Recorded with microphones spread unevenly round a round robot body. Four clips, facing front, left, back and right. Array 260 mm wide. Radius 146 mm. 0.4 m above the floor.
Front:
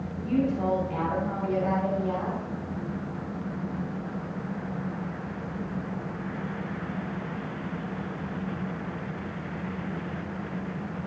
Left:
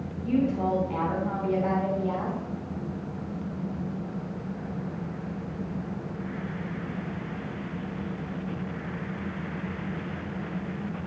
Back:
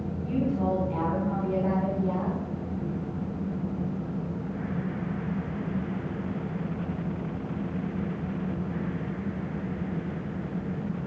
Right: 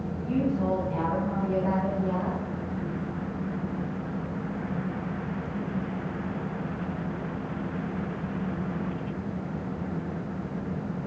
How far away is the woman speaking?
About 4.5 m.